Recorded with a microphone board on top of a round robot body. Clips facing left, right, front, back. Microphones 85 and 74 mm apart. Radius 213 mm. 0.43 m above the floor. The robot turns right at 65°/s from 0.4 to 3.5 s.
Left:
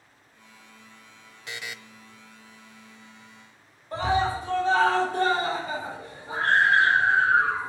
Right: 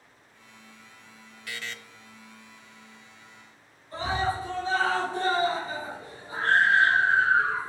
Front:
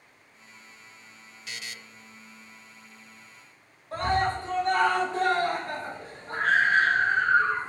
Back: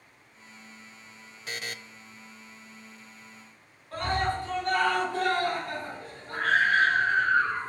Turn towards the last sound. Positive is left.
turn(degrees=60)